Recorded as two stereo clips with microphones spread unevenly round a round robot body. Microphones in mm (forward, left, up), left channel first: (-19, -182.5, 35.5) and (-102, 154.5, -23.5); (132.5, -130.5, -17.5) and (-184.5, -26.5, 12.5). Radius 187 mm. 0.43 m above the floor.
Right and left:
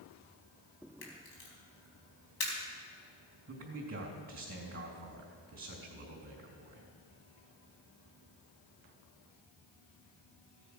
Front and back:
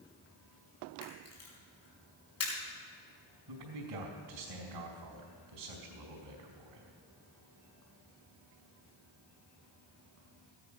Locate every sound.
1.0 s a camera shutter: 60° right, 4 m
3.5 s a man speaking: 165° left, 3 m